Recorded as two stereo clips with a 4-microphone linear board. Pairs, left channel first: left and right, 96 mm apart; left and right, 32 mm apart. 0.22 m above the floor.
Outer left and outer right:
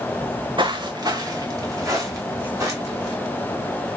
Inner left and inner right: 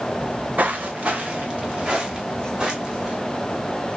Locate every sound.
0.2 s footsteps: 65° right (ahead or behind), 0.5 m; by 3.1 s 30° right (ahead or behind), 3 m